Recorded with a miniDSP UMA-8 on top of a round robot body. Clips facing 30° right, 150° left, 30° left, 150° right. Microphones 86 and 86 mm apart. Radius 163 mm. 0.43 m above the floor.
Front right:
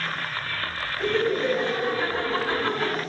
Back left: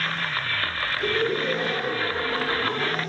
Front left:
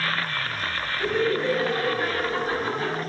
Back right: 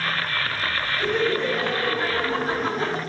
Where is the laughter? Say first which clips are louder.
Front right 2 dB, even; 85° right, 4 m; by 3.0 s 95° right, 2.5 m.